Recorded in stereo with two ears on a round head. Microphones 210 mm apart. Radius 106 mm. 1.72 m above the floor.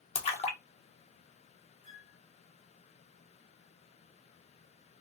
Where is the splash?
30° left (ahead or behind), 1.2 m.